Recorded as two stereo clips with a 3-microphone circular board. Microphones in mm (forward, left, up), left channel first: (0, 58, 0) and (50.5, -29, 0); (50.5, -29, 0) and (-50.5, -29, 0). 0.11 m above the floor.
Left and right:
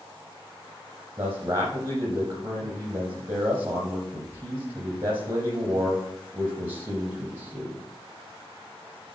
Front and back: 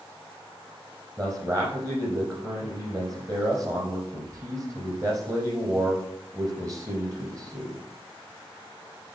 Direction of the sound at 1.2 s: 125° right.